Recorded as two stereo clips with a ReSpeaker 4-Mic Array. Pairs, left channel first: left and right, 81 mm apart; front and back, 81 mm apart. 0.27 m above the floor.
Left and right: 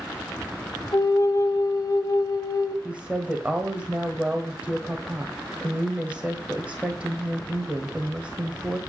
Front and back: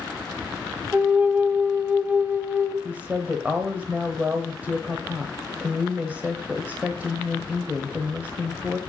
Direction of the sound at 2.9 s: 140° right.